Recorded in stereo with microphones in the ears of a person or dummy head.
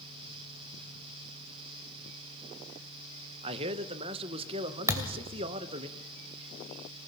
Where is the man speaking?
30° right (ahead or behind), 1.1 m.